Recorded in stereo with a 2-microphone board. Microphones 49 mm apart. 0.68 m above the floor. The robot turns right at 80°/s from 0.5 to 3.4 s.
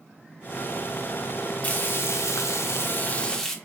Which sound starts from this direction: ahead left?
Frying, at 1.6 s.